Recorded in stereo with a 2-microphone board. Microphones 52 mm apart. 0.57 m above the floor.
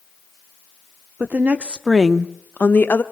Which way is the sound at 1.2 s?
35° right (ahead or behind).